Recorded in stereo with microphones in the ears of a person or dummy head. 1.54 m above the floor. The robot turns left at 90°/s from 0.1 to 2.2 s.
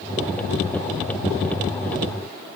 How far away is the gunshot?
No gunshot in this recording.